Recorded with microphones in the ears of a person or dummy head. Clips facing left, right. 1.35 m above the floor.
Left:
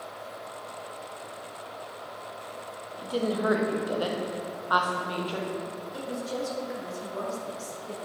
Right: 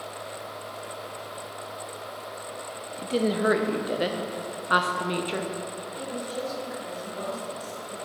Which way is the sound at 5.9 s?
80° left.